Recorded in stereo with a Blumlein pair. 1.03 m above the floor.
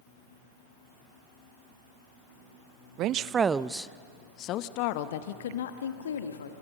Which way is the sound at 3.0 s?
40° right.